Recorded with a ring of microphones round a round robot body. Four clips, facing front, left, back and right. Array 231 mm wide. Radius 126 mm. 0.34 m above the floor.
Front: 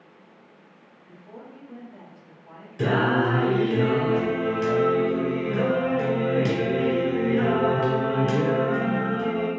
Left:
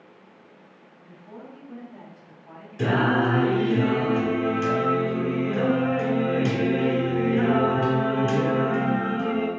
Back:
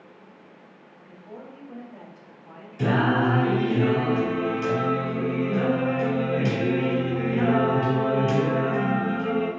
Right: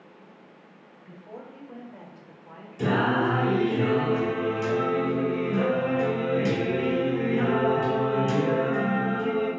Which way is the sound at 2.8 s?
35° left.